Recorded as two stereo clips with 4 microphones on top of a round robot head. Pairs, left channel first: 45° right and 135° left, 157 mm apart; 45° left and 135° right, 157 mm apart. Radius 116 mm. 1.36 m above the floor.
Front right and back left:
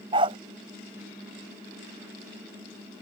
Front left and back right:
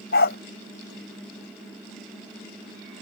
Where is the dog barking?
70° left.